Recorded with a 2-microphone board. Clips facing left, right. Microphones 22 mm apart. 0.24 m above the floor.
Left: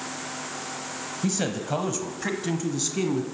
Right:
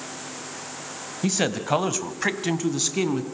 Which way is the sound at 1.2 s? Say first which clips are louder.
Right 4 dB; 20° right (ahead or behind).